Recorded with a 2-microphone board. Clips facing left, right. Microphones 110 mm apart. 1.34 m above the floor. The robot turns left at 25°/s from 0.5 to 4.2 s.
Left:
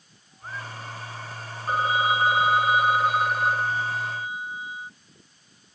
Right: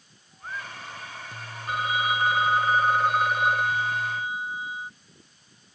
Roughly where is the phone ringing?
Ahead left.